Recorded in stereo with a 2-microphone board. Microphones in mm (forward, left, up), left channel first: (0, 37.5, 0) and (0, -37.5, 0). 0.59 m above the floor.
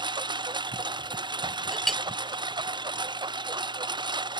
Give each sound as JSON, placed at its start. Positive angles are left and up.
{"t": 0.0, "sound": "a lawn mower", "side_deg": -85}
{"t": 1.7, "sound": "a clink", "side_deg": 5}